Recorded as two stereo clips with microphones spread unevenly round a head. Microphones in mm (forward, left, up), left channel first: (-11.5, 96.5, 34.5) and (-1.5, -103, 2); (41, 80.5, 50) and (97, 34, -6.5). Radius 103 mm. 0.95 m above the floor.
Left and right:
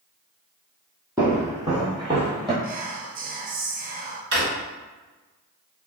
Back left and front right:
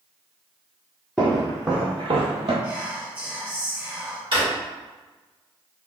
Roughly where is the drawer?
Ahead right.